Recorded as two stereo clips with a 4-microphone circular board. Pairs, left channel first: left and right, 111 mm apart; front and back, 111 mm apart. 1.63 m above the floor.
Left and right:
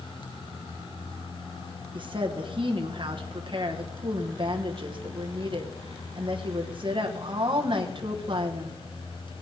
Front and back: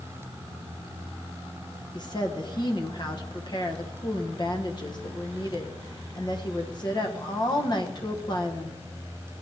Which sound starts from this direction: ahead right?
A woman speaking, at 1.9 s.